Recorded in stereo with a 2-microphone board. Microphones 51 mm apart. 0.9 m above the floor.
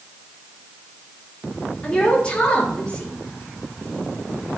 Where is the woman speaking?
20° left (ahead or behind), 2.5 m.